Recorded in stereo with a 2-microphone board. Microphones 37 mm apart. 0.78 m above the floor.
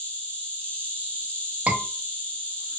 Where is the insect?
50° left (ahead or behind), 1.2 m.